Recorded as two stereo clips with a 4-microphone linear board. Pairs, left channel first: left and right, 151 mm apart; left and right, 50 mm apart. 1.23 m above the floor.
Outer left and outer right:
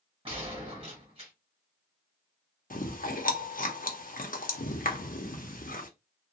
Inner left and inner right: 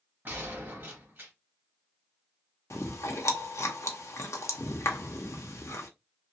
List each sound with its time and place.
0.2 s a gunshot: 40° right (ahead or behind), 1.3 m
2.7 s chewing: 65° left (ahead or behind), 0.7 m